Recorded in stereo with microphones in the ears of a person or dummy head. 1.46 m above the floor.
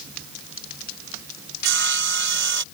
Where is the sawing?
65° right (ahead or behind).